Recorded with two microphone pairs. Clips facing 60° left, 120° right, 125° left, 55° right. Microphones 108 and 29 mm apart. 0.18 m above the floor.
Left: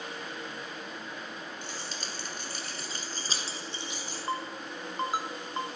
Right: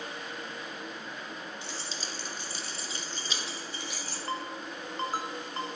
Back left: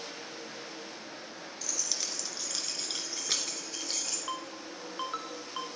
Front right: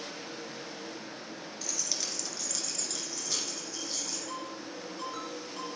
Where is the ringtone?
125° left, 1.3 m.